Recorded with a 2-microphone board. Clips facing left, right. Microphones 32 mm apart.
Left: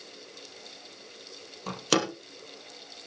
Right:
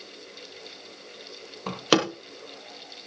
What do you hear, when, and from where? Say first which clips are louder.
1.7 s a door slam: right 4 dB; 25° right (ahead or behind), 2.5 m